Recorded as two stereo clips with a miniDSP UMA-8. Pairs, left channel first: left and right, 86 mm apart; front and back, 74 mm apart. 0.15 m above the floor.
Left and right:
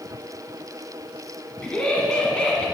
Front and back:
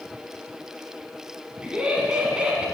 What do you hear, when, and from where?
1.6 s laughter: 135° left, 1.1 m